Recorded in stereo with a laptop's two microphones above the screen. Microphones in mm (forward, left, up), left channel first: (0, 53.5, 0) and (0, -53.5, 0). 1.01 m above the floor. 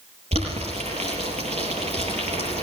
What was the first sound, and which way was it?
Boiling, 80° right.